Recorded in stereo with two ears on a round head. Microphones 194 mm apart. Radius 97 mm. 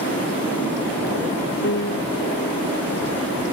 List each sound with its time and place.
1.6 s a piano: 50° left (ahead or behind)